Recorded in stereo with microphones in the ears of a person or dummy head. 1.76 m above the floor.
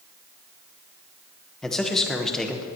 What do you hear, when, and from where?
1.6 s a man speaking: 5° left (ahead or behind), 1.4 m